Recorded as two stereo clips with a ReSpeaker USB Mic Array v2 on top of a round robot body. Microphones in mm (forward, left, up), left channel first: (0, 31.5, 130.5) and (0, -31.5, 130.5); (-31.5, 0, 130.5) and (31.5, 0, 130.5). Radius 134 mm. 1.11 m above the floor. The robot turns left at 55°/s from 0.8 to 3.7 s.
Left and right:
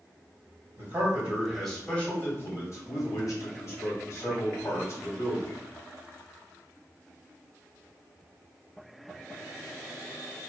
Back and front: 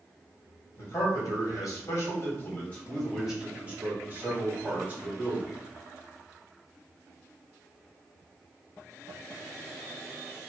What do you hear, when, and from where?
0.8 s a man speaking: 135° right, 1.9 m; by 5.5 s 65° left, 1.9 m